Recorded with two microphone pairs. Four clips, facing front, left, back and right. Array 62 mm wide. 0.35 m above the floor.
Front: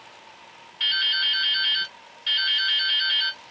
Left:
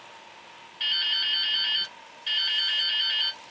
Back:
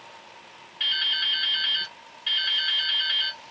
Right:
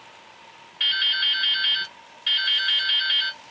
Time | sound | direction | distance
0.8 | dripping | 75° right | 1.5 m